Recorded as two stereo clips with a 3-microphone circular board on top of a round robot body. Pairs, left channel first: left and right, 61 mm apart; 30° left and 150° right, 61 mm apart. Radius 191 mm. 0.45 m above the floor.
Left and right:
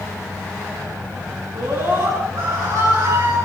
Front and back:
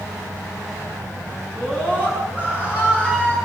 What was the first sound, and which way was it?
A scream, 85° right.